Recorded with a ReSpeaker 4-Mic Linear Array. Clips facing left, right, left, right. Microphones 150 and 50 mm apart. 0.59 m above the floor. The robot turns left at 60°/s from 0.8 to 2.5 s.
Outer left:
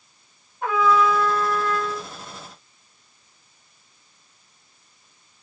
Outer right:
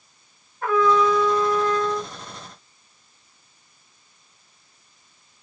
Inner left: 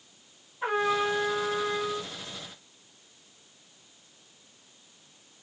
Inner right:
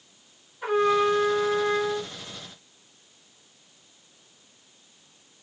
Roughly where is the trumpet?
Ahead.